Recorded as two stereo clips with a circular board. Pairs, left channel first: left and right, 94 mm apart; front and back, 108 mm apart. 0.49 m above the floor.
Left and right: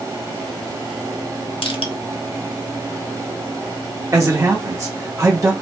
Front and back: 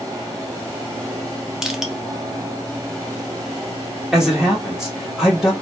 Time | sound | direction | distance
1.6 | crushing | 95° left | 0.6 m
4.1 | a man speaking | 100° right | 0.8 m